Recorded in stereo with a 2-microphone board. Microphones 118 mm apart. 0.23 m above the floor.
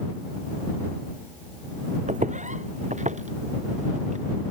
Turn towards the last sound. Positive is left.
turn(degrees=-70)  # may be behind; listen again after turning